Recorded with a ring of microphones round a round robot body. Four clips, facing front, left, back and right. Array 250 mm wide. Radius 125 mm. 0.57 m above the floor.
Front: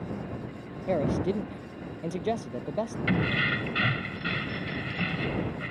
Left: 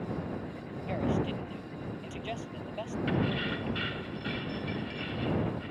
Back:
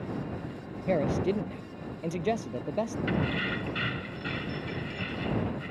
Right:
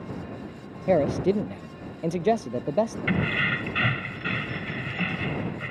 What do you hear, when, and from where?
0.9 s a man speaking: 90° right
3.1 s keys jangling: 60° right